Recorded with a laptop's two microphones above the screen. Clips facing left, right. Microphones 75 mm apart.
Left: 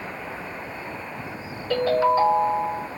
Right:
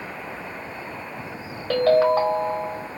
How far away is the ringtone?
About 1.3 m.